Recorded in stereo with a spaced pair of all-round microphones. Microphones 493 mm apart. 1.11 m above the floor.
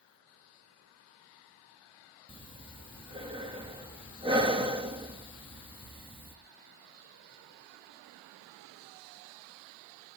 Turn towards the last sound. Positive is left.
turn(degrees=-10)  # may be behind; listen again after turning